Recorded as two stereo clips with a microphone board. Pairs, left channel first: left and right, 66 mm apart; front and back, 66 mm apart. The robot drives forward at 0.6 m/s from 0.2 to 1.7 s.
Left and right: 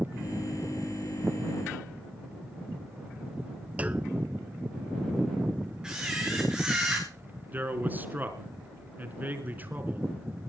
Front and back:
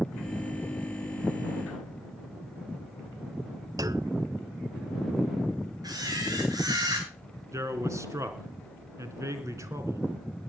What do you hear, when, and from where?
3.8 s a clunk: 160° right, 0.6 m
5.8 s a camera shutter: 170° right, 6.5 m
7.5 s a man speaking: 150° right, 3.5 m